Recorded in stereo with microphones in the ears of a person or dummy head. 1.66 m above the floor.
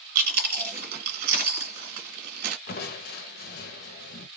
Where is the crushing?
55° left (ahead or behind), 0.7 m.